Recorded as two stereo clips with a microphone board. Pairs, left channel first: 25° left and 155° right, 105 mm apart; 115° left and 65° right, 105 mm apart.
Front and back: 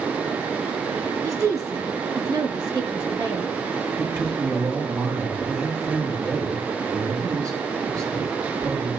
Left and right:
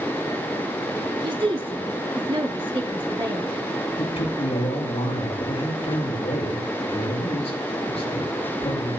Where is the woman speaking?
100° right, 2 m; by 3.6 s 105° right, 4.5 m.